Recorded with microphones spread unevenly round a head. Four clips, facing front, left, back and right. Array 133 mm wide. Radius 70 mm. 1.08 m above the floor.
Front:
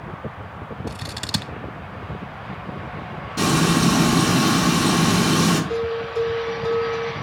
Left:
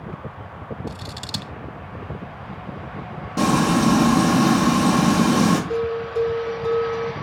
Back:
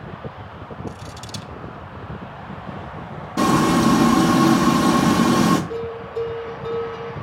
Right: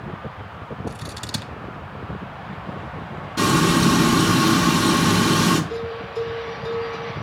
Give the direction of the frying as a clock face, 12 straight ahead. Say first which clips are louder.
Even, back 3 dB; 8 o'clock.